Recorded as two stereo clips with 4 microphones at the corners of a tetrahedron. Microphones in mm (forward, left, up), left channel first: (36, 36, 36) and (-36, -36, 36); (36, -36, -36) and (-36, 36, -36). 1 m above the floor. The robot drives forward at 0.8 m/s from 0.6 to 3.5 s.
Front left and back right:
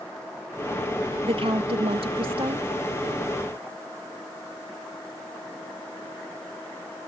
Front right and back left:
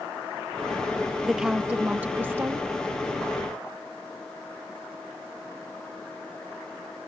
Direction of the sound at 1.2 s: 140° right.